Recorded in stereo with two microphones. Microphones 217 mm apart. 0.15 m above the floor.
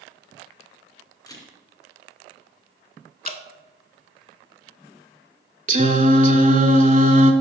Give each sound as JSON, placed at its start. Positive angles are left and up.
{"t": 1.3, "sound": "a camera shutter", "side_deg": 15, "distance_m": 1.7}
{"t": 3.2, "sound": "dripping", "side_deg": 40, "distance_m": 0.6}
{"t": 5.7, "sound": "singing", "side_deg": -35, "distance_m": 0.6}